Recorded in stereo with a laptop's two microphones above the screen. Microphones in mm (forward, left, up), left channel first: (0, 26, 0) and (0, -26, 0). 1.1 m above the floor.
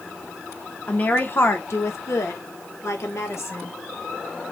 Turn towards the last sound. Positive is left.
turn(degrees=60)  # may be behind; listen again after turning